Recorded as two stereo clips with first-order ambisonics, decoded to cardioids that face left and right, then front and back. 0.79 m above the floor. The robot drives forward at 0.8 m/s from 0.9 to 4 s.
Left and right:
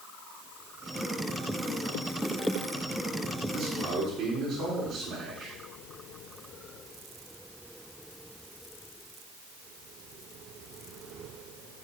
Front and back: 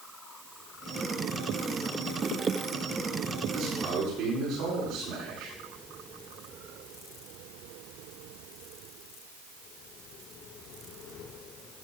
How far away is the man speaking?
About 6.5 m.